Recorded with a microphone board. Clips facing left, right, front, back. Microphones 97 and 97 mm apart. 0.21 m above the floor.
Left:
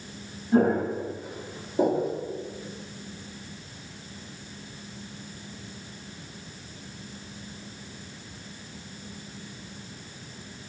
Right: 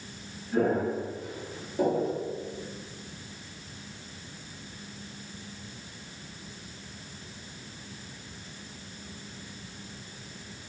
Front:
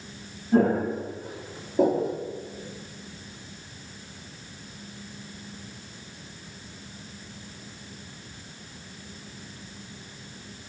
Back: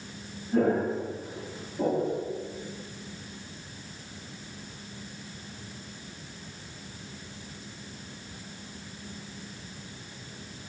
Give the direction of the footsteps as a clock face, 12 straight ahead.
11 o'clock.